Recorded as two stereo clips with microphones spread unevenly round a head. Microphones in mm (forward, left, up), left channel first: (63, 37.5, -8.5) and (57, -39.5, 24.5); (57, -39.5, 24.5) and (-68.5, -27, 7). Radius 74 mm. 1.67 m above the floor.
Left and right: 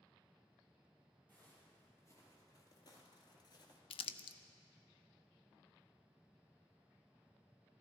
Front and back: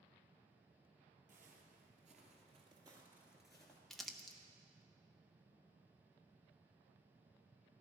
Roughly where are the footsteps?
Behind.